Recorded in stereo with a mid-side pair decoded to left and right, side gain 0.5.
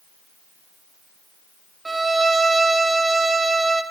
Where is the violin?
20° right, 0.5 m.